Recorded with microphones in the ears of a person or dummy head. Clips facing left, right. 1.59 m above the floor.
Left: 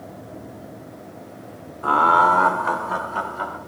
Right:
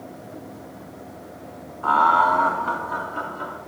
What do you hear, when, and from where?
1.8 s laughter: 25° left (ahead or behind), 0.8 m; by 3.6 s 80° left, 1.9 m